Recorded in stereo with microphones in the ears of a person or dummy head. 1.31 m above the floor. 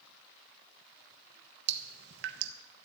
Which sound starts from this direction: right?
Dripping, at 1.7 s.